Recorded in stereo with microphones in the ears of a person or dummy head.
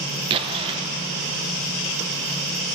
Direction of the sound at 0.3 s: 30° right (ahead or behind).